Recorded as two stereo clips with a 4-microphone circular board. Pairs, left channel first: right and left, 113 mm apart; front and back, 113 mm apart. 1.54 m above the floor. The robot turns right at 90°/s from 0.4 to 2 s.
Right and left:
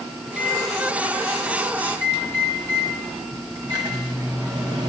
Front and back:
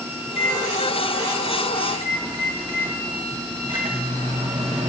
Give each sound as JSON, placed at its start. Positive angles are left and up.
{"t": 0.2, "sound": "a microwave", "azimuth_deg": 0, "distance_m": 1.0}